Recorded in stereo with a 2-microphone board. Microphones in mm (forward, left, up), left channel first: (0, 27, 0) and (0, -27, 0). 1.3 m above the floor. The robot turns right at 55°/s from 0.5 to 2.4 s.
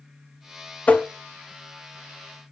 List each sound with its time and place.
0.9 s tapping: 25° left (ahead or behind), 0.7 m; by 1.1 s 20° left (ahead or behind), 0.7 m